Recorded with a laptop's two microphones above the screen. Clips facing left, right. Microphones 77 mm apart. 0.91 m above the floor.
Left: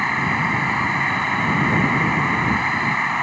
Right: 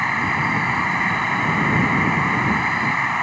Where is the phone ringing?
I don't hear a phone ringing.